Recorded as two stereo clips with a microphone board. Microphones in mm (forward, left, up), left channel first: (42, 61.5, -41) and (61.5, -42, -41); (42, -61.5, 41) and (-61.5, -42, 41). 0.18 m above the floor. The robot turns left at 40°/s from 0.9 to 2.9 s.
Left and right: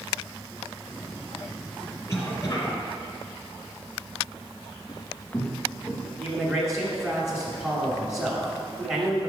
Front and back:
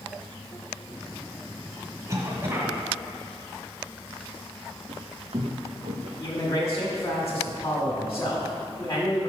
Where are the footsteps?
145° left, 0.7 m; by 6.1 s 165° right, 1.4 m.